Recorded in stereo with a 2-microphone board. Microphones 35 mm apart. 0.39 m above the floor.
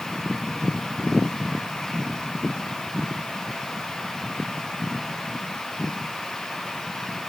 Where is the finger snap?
No finger snap in this recording.